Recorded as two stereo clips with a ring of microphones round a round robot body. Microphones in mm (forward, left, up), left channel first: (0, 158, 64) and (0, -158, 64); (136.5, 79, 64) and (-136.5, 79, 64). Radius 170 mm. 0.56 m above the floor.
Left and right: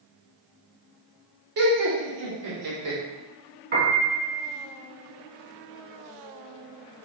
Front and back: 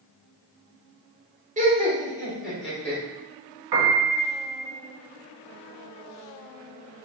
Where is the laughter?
120° right, 1.3 m; by 3.0 s 85° right, 2 m.